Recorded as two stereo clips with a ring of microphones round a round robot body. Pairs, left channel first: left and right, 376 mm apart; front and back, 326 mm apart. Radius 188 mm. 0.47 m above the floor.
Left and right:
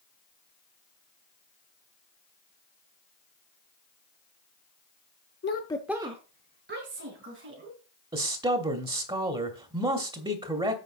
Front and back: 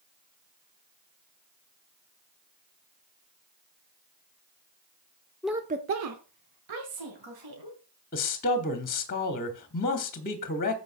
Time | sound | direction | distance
5.4 | a woman speaking | 85° left | 0.7 m
8.1 | a man speaking | 25° right | 1.0 m